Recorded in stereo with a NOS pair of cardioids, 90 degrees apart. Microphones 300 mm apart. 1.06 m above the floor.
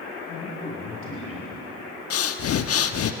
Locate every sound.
0.3 s a man speaking: 50° left, 6.5 m
2.1 s breathing: 55° left, 1.2 m